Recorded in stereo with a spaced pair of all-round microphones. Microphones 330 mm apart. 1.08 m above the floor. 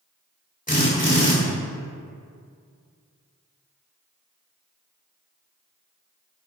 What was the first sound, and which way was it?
A drill, 25° left (ahead or behind).